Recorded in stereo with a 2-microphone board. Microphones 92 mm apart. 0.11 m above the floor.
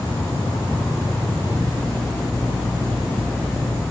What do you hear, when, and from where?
0.0 s an insect: 25° left (ahead or behind), 6 m